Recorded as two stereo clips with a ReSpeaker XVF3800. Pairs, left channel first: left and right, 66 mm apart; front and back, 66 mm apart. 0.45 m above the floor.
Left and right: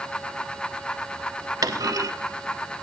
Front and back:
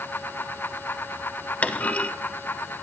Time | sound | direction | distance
1.6 | a clunk | 70° right | 0.6 m